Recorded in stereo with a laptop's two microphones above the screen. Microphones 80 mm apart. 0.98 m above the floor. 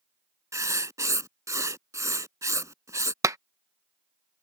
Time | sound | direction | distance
0.5 | writing | 40° right (ahead or behind) | ?
3.2 | a clap | 35° right (ahead or behind) | ?